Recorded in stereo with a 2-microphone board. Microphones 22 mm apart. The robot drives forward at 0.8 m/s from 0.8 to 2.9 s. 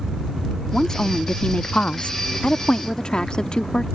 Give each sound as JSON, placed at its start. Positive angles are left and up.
{"t": 0.7, "sound": "a woman speaking", "side_deg": 35}